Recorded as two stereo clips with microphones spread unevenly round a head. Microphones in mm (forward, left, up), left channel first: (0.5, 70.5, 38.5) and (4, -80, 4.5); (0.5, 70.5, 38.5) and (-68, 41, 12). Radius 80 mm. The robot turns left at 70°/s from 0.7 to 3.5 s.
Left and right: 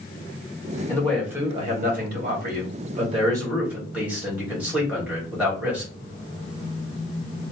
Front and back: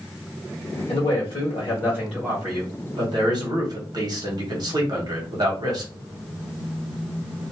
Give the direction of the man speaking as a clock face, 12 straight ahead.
11 o'clock.